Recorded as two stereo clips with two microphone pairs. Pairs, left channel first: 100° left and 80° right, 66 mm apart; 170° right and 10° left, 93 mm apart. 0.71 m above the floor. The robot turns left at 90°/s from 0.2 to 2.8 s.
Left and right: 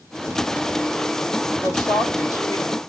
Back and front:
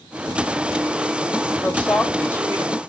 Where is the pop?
No pop in this recording.